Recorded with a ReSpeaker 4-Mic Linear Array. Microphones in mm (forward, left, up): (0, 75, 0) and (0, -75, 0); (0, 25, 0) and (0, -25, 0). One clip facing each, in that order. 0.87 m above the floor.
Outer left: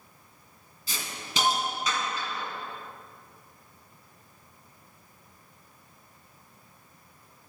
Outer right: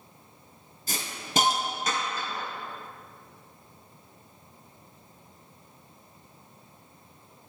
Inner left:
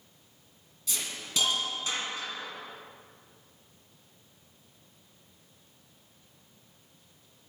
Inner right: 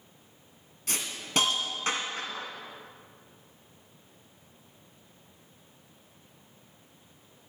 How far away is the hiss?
About 2.5 m.